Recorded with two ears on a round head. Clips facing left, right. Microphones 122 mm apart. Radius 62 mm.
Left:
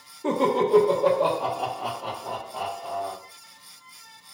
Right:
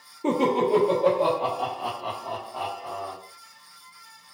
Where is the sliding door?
I don't hear a sliding door.